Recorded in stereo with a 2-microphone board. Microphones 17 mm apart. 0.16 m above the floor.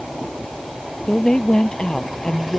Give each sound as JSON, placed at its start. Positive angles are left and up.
{"t": 1.1, "sound": "a woman speaking", "side_deg": 55}